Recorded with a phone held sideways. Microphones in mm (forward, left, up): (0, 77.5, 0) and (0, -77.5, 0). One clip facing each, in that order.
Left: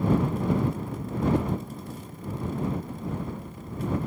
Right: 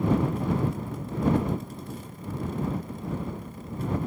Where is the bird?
I don't hear a bird.